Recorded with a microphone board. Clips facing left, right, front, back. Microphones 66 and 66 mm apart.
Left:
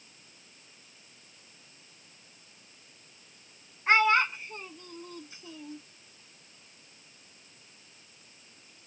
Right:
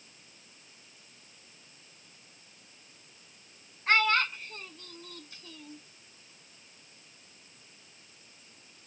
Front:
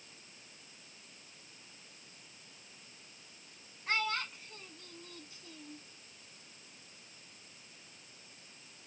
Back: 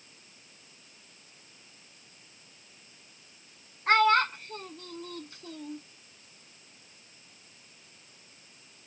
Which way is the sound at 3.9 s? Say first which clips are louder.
Left 3 dB, back 13 dB; 160° left.